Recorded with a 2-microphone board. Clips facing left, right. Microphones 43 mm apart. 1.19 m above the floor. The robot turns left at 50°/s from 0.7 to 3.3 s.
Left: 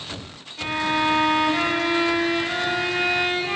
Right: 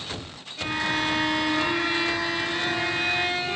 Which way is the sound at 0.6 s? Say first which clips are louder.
Left 3 dB; straight behind.